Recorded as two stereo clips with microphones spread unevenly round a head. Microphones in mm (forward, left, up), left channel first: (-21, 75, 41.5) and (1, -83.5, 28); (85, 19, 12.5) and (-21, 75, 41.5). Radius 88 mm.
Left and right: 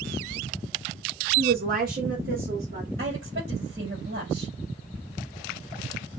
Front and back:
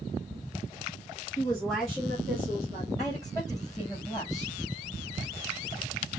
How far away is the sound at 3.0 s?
About 5 m.